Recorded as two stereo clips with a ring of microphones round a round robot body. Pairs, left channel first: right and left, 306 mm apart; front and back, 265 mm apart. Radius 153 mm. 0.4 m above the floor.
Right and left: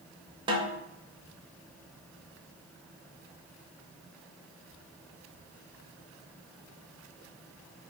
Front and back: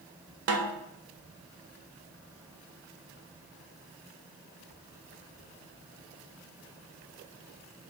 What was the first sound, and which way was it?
A snare drum, 165° left.